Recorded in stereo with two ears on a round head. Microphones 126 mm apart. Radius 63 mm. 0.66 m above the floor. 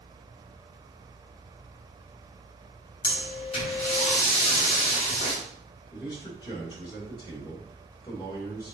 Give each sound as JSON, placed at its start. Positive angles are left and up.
{"t": 3.0, "sound": "breathing", "side_deg": 40, "distance_m": 4.0}
{"t": 5.9, "sound": "a man speaking", "side_deg": 35, "distance_m": 2.5}